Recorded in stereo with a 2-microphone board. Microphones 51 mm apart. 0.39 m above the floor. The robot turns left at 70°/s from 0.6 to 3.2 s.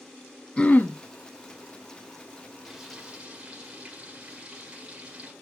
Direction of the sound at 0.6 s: 20° left (ahead or behind).